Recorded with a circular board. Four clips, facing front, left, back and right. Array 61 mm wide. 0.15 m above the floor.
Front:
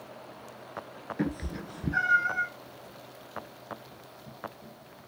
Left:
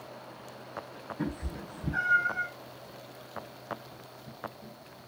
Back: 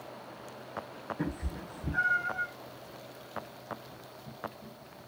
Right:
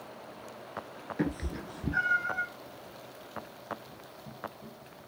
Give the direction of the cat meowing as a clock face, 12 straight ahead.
2 o'clock.